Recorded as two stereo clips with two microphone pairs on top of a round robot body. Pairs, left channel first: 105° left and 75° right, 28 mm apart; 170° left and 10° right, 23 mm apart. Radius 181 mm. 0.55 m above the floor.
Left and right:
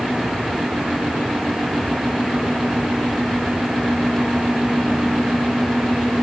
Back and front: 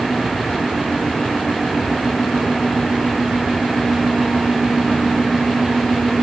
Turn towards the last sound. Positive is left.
No sound to turn to.